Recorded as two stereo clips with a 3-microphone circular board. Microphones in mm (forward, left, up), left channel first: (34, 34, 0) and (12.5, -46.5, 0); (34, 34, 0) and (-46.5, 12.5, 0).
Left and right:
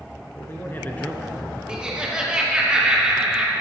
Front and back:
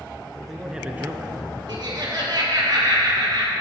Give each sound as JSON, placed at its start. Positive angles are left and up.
{"t": 0.3, "sound": "a man speaking", "azimuth_deg": 95, "distance_m": 1.4}
{"t": 1.7, "sound": "laughter", "azimuth_deg": 180, "distance_m": 3.0}